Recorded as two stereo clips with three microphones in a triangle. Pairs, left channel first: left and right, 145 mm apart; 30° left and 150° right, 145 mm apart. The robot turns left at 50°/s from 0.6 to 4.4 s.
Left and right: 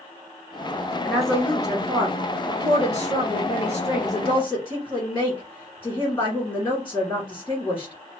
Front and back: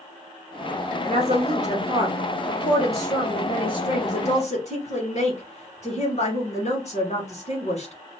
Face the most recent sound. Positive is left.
turn(degrees=25)